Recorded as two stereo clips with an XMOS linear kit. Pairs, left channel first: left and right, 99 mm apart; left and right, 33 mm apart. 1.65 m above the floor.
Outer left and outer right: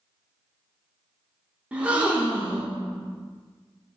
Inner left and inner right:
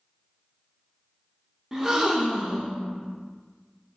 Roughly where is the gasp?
Centre.